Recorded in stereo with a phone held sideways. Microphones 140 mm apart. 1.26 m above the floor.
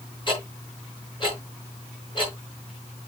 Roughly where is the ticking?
Left.